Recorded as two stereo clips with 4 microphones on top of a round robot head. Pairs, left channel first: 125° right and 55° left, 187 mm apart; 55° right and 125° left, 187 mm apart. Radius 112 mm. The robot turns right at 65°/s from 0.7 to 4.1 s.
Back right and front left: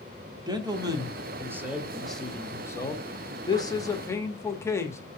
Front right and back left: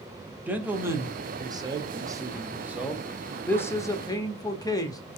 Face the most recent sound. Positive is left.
turn(degrees=-80)